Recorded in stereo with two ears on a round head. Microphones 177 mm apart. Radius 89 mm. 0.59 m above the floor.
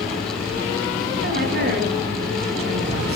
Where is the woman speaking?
55° right (ahead or behind), 6 m.